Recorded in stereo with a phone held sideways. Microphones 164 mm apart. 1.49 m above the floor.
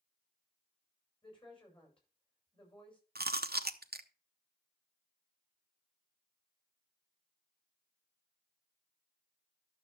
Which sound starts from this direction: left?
A woman speaking, at 1.2 s.